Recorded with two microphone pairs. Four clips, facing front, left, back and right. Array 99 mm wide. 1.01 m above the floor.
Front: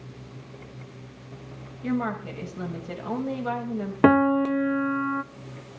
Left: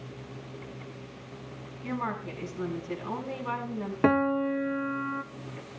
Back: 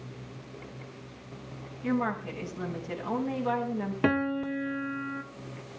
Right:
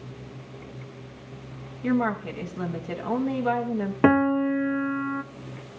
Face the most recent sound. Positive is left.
turn(degrees=-20)